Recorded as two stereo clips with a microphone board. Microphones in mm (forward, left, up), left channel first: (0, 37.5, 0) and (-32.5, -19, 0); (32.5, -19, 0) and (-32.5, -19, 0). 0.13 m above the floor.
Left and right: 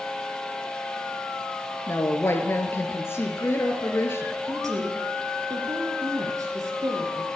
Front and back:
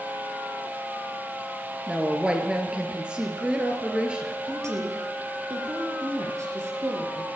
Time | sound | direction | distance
1.9 | a woman speaking | 110° left | 2.5 m
4.5 | a woman speaking | 145° right | 3.5 m